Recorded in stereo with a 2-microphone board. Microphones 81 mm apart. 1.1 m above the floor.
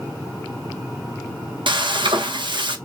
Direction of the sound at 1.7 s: 80° right.